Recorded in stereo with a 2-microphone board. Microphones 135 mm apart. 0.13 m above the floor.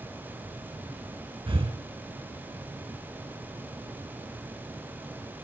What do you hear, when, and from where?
1.5 s breathing: 40° right (ahead or behind), 0.5 m